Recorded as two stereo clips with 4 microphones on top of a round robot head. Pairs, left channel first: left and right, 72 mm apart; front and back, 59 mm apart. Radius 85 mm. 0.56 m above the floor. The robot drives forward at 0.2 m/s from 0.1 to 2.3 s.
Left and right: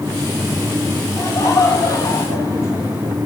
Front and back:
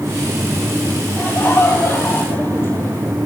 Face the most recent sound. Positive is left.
turn(degrees=55)